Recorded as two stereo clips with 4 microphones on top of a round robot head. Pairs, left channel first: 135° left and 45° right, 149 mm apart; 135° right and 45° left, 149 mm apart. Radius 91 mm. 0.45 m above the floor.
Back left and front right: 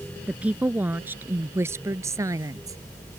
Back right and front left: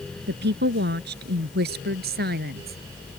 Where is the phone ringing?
I don't hear a phone ringing.